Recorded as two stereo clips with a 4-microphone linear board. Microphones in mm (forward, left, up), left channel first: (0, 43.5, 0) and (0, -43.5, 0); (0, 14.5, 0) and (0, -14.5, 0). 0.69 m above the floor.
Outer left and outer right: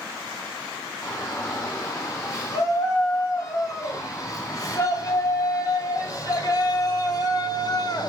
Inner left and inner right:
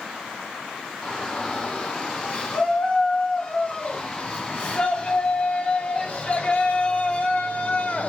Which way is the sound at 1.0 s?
35° left (ahead or behind).